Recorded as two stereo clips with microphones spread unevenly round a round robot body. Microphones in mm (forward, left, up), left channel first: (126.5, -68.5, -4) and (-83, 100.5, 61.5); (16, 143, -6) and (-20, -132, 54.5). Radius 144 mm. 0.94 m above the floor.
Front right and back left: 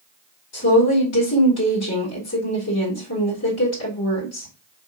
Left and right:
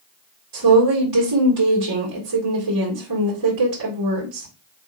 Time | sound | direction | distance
0.5 | a woman speaking | 75° right | 1.6 m